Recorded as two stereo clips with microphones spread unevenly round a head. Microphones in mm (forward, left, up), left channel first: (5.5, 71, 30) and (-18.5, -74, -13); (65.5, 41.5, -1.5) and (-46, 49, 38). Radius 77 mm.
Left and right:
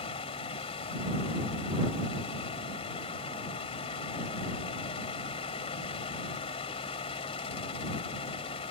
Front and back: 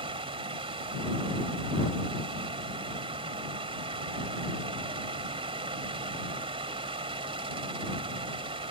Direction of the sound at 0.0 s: 135° left.